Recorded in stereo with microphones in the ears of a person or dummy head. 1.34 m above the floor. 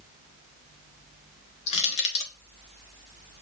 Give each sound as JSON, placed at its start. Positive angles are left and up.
{"t": 1.7, "sound": "crushing", "side_deg": 40, "distance_m": 0.9}